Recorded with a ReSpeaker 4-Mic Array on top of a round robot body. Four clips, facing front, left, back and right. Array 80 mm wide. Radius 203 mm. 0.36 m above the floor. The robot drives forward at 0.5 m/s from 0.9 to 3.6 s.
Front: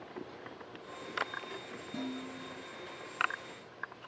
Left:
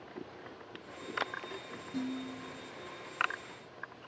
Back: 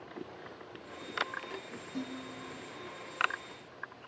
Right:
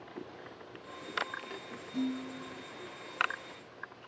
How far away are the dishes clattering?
About 4.5 m.